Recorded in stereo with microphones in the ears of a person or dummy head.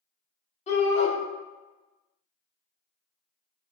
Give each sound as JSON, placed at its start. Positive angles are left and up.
{"t": 0.7, "sound": "a shout", "side_deg": 45, "distance_m": 1.7}